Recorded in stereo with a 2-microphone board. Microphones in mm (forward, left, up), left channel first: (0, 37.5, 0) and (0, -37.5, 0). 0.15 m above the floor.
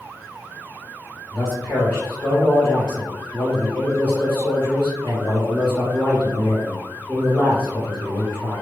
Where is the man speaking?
10° left (ahead or behind), 1.5 m.